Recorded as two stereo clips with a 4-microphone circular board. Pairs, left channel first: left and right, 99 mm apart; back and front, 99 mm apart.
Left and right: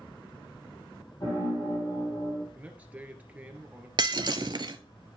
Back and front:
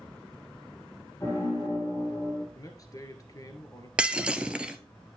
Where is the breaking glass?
75° right, 0.6 m.